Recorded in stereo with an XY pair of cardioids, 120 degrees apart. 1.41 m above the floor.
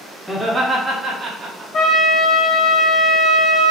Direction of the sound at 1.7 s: 50° left.